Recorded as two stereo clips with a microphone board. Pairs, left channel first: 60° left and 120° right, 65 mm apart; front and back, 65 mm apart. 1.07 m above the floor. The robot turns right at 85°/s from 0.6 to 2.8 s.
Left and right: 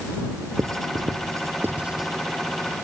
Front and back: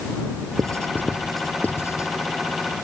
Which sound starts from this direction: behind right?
Writing, at 0.6 s.